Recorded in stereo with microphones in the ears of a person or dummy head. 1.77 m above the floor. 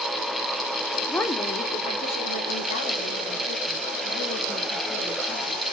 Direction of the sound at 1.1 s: 5° left (ahead or behind).